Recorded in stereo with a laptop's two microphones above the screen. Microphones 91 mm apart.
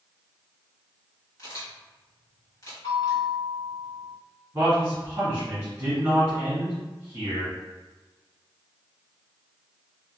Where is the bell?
45° left (ahead or behind), 1.6 m.